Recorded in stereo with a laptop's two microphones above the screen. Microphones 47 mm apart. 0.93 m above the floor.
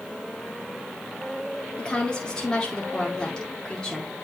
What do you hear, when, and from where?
1.8 s a woman speaking: 15° left (ahead or behind), 2.5 m